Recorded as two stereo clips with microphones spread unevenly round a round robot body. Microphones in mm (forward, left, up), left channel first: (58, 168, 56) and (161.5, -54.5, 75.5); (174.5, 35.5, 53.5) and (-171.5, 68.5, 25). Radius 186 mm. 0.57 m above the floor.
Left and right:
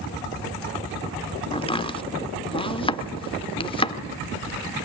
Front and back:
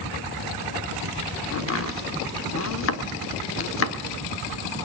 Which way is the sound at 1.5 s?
50° left.